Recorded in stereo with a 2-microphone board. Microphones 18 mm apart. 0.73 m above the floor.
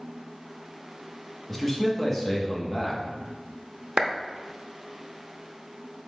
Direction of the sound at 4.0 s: 50° right (ahead or behind).